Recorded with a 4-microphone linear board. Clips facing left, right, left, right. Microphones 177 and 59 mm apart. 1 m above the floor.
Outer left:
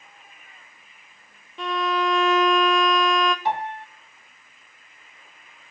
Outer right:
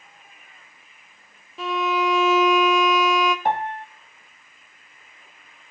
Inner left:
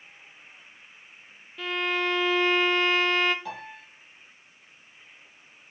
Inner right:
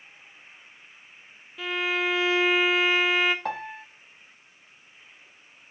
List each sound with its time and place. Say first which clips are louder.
1.6 s a violin: outer right 1 dB, inner right 1 dB; 5° right (ahead or behind), 0.6 m
3.5 s a piano: outer right 2 dB, inner right 6 dB; 50° right (ahead or behind), 0.9 m